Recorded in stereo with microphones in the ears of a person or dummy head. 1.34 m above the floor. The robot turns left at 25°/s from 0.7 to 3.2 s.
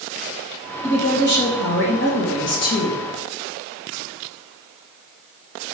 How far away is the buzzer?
I don't hear a buzzer.